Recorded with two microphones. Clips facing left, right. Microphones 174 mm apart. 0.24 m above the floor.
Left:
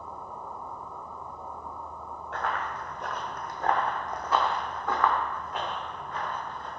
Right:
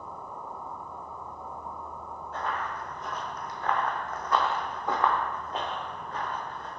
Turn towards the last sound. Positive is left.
turn(degrees=-40)  # may be behind; listen again after turning